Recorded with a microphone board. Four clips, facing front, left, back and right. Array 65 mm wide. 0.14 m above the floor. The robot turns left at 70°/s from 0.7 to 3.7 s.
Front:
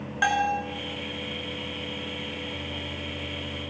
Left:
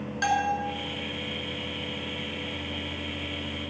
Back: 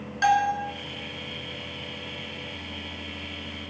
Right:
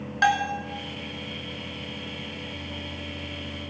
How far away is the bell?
About 1.0 m.